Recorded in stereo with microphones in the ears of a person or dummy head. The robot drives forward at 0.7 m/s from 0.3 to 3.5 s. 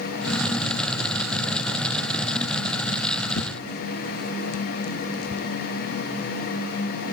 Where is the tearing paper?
70° left (ahead or behind), 0.9 m.